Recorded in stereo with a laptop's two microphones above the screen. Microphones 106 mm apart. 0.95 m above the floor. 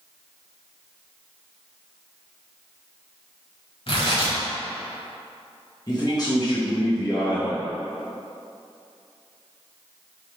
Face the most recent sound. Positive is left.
turn(degrees=40)  # may be behind; listen again after turning